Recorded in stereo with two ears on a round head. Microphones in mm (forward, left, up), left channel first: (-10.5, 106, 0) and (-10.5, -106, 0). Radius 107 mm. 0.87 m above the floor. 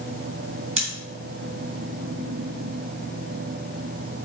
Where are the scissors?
25° right (ahead or behind), 3 m.